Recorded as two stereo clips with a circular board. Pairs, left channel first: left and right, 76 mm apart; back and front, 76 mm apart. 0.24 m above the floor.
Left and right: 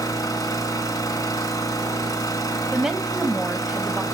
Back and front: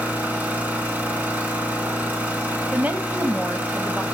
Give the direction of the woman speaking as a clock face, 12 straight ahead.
1 o'clock.